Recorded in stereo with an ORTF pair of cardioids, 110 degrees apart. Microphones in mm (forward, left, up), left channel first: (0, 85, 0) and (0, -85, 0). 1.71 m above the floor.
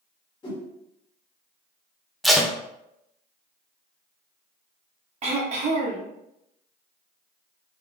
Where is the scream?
I don't hear a scream.